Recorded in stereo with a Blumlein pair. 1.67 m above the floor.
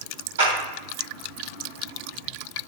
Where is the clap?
65° right, 4 m.